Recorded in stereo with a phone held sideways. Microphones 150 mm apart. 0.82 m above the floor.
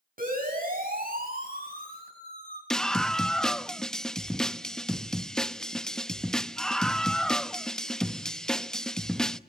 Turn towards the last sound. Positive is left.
turn(degrees=5)  # may be behind; listen again after turning